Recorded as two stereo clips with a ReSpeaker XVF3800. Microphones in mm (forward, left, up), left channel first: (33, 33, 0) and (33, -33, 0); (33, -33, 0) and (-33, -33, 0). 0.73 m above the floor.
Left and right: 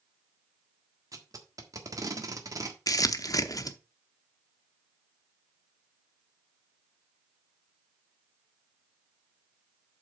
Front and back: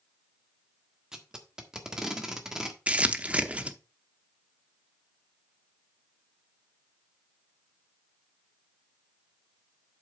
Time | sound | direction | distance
1.1 | tape being pulled | 100° right | 1.5 m
2.9 | crumpling | 115° left | 0.7 m